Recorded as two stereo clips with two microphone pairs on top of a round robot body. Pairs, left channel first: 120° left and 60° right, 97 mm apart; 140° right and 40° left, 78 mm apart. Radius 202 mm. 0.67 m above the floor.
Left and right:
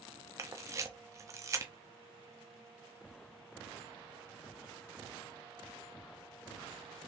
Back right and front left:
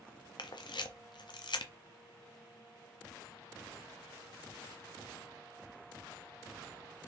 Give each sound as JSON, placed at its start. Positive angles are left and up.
{"t": 0.4, "sound": "a camera shutter", "azimuth_deg": -115, "distance_m": 0.7}